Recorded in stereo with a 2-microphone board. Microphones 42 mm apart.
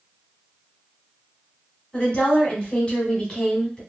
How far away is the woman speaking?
About 1.3 m.